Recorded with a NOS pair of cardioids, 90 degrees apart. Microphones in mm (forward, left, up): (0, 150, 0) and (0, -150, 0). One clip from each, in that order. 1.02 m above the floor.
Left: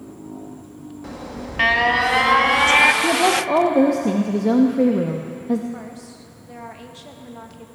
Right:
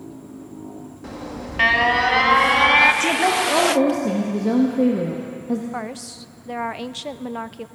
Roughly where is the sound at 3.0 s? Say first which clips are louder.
Left 1 dB; ahead.